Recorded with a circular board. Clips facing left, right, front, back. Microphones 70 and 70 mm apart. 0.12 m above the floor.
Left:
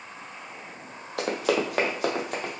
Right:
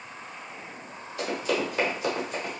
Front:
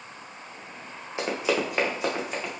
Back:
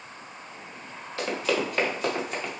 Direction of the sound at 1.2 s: 70° left.